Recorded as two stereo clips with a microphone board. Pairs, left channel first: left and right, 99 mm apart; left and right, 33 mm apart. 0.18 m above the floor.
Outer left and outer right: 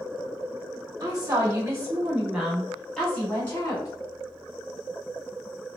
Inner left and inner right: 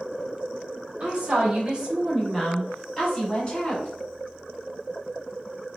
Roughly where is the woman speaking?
Right.